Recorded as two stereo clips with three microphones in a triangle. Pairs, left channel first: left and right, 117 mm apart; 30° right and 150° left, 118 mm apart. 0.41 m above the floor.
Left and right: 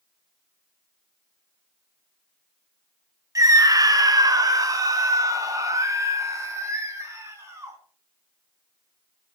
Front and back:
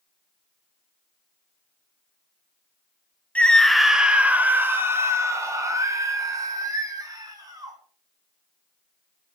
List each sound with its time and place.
3.4 s a scream: 95° right, 0.8 m; by 7.8 s 155° right, 3 m